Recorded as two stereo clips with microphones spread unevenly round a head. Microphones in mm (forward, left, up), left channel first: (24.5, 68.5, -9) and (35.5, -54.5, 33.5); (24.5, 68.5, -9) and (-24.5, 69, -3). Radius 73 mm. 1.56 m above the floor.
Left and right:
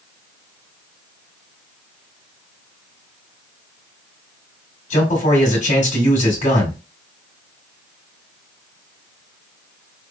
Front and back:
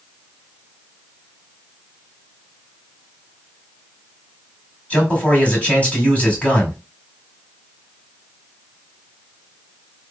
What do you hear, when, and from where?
4.9 s a man speaking: 60° left, 1.9 m